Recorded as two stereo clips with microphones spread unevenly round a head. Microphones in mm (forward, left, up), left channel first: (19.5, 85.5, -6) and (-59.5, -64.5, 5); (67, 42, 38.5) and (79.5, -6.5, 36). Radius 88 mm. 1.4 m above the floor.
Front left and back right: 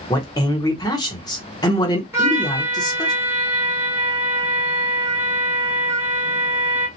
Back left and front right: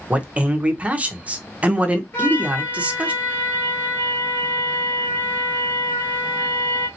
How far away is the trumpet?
About 1.7 m.